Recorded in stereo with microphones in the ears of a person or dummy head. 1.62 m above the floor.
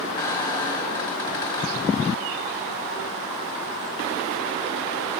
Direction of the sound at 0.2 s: 20° left (ahead or behind).